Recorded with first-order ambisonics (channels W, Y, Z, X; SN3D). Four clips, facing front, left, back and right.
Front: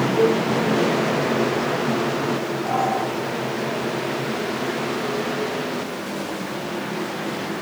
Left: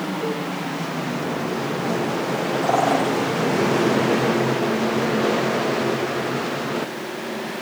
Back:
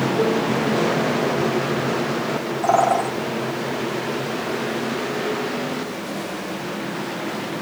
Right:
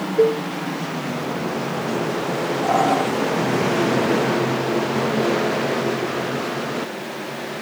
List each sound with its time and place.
0.2 s a cowbell: 85° right, 2.5 m
2.6 s a bird: 165° left, 4.5 m